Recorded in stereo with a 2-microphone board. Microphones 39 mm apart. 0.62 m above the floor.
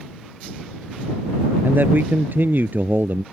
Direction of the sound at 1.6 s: 55° right (ahead or behind).